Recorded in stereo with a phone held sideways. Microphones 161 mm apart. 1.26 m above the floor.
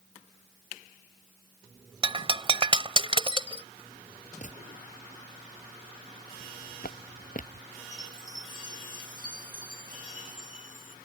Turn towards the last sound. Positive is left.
turn(degrees=-55)  # may be behind; listen again after turning